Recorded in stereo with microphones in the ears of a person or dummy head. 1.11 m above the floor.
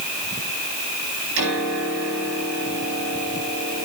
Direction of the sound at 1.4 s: 70° right (ahead or behind).